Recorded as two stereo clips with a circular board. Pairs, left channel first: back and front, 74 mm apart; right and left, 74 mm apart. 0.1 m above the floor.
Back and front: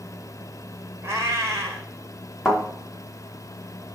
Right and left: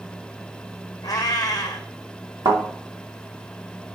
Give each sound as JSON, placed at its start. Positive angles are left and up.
{"t": 1.0, "sound": "a cat meowing", "azimuth_deg": -55, "distance_m": 1.4}
{"t": 2.5, "sound": "a thud", "azimuth_deg": 85, "distance_m": 3.5}